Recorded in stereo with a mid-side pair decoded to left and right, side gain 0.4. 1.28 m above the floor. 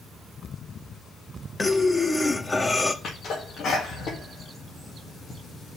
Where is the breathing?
25° left, 0.9 m.